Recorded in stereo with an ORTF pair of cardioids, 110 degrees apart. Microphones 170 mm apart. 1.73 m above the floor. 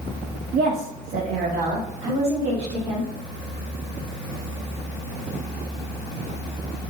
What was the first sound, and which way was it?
A woman speaking, 60° right.